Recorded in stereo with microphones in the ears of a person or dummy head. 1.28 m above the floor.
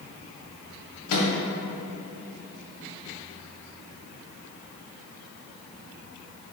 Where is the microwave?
85° left, 0.8 m.